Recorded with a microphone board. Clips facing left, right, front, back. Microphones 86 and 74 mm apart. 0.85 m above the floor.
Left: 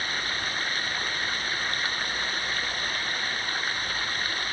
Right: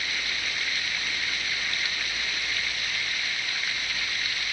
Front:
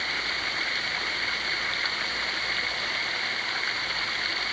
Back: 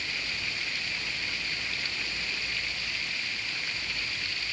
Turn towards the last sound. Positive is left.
turn(degrees=40)